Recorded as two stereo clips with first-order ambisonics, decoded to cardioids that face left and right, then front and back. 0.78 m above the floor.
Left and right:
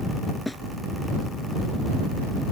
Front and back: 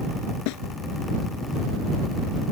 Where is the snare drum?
5° left.